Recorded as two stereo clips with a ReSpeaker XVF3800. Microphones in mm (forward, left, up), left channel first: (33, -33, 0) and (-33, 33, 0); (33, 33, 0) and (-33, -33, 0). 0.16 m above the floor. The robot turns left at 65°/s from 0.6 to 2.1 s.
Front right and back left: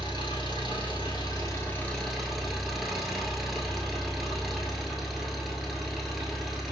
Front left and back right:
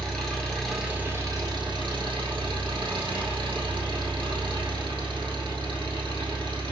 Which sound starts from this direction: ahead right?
An engine running, at 0.0 s.